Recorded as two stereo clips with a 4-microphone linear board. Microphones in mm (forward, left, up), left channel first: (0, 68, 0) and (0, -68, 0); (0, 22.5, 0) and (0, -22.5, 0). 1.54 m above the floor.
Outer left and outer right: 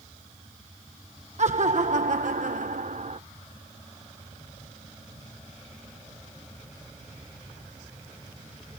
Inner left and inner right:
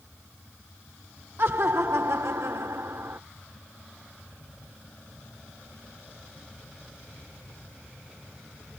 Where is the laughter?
60° right (ahead or behind); by 3.2 s 55° right (ahead or behind).